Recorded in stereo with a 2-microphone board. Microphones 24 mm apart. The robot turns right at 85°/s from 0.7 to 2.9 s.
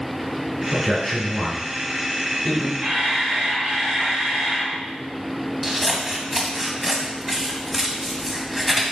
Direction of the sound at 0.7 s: 10° right (ahead or behind).